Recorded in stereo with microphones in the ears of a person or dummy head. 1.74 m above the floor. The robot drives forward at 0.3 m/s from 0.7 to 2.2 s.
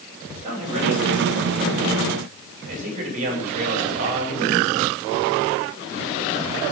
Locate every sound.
0.3 s a man speaking: 40° right (ahead or behind), 7.5 m